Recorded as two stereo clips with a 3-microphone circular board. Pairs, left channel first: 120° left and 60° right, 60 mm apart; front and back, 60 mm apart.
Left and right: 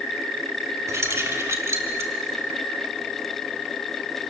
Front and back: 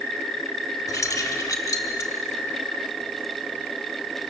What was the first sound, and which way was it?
Keys jangling, 25° right.